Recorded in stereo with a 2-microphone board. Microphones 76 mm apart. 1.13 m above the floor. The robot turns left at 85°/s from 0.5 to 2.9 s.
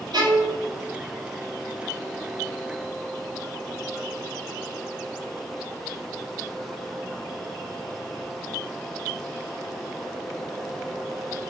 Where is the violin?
65° right (ahead or behind), 1.1 m; by 0.6 s 70° right (ahead or behind), 1.1 m.